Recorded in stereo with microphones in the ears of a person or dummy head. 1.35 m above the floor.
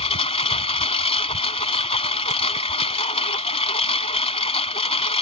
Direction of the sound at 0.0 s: 30° left (ahead or behind).